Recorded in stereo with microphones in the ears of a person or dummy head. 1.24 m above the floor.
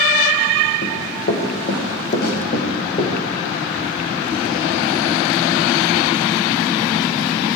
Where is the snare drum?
70° left (ahead or behind), 6 m.